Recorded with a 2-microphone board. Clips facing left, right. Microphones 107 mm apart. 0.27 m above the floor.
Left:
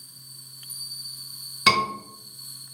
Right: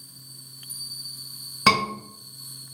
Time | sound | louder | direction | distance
1.7 | a scream | right 1 dB | 30° right (ahead or behind) | 1.8 m